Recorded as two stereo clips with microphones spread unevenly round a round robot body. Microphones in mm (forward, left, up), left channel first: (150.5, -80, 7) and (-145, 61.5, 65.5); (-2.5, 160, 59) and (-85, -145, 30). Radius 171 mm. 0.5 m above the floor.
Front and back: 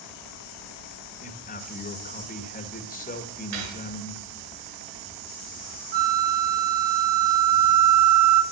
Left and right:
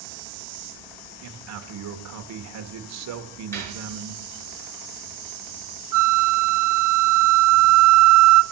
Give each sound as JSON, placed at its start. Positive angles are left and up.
{"t": 1.2, "sound": "a man speaking", "azimuth_deg": -80, "distance_m": 1.3}
{"t": 3.5, "sound": "cutlery clinking", "azimuth_deg": 155, "distance_m": 4.0}
{"t": 5.9, "sound": "a flute", "azimuth_deg": -140, "distance_m": 0.5}